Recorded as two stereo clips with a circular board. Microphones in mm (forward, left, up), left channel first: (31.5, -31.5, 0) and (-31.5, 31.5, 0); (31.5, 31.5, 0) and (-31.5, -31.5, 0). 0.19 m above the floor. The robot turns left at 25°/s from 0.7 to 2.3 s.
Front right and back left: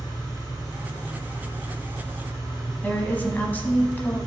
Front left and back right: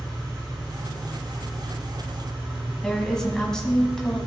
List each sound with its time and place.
0.0 s an engine running: 90° right, 3 m; by 4.3 s 130° right, 3 m
2.8 s a woman speaking: 25° right, 1.0 m